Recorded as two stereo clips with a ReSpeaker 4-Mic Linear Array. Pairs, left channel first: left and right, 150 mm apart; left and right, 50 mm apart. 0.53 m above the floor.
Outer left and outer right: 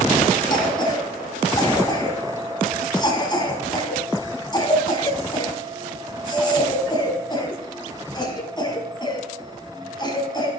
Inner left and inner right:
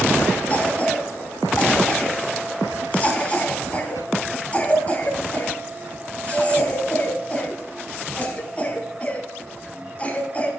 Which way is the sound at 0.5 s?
30° left (ahead or behind).